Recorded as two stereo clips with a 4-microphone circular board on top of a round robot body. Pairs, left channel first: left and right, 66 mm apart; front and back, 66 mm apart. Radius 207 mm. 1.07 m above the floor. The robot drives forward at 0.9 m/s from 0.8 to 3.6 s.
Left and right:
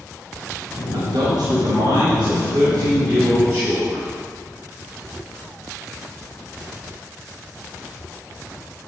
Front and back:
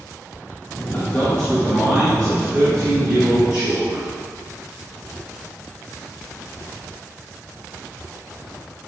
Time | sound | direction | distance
0.9 | a man speaking | 65° right | 1.6 m